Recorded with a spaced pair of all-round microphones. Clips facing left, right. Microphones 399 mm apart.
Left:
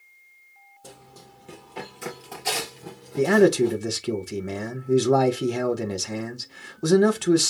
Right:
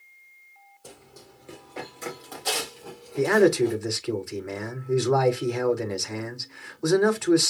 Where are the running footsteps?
50° left (ahead or behind), 2.5 m; by 3.8 s 15° left (ahead or behind), 1.2 m.